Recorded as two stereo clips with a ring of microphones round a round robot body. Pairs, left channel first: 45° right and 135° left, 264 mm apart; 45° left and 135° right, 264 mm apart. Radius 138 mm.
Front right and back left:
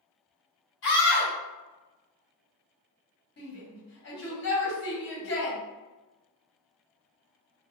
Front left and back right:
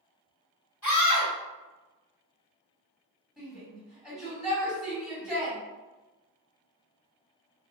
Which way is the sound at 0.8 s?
40° right.